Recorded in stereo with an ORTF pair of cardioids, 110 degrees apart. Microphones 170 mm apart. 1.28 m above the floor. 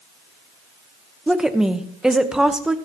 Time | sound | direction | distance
1.3 | a woman speaking | 5° right | 1.2 m